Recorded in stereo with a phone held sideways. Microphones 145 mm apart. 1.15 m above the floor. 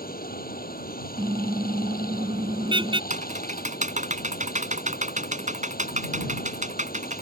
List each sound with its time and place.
0.0 s running water: 85° left
1.2 s a car horn: 35° right (ahead or behind)
3.1 s typing on a keyboard: 55° right (ahead or behind)